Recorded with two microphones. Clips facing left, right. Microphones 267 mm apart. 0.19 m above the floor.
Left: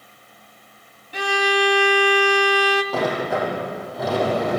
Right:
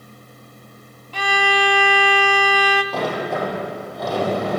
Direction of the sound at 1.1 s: 15° left (ahead or behind).